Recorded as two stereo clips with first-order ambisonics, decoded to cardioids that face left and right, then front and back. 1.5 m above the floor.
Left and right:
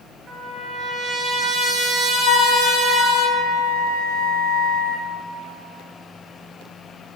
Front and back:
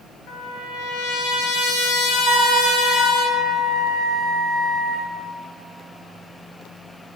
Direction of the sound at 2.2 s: 115° left.